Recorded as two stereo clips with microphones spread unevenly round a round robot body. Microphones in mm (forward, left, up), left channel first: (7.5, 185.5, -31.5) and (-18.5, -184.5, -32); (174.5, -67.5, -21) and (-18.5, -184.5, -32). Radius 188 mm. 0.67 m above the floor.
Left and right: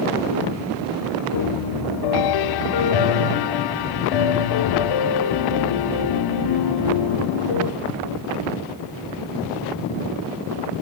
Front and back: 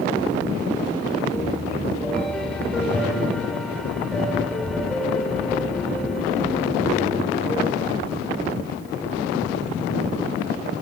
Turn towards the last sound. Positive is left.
turn(degrees=120)